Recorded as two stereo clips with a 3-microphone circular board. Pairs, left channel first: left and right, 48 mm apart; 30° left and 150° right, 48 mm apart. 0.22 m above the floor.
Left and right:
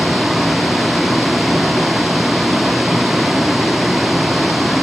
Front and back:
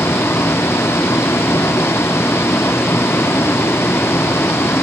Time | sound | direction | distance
0.0 | a vehicle | 5° right | ?